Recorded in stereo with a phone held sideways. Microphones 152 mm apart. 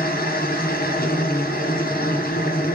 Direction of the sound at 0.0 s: 80° left.